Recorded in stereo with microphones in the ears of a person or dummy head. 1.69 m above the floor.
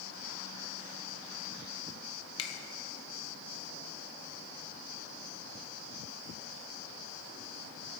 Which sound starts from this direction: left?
A finger snap, at 2.4 s.